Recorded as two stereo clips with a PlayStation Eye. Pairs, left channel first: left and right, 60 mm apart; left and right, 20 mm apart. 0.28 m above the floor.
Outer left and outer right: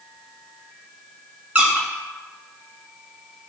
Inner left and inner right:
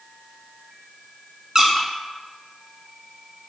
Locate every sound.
1.6 s a squeak: 25° right (ahead or behind), 0.6 m